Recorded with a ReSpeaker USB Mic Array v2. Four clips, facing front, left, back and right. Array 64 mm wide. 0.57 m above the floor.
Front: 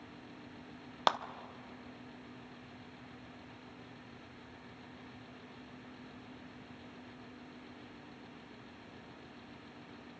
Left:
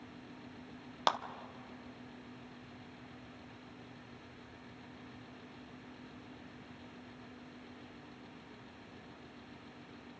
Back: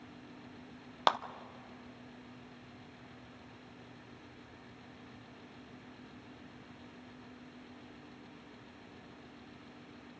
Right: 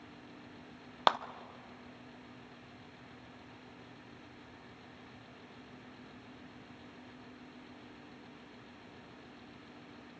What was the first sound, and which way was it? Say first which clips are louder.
A clap: right 4 dB, back 1 dB; 105° right.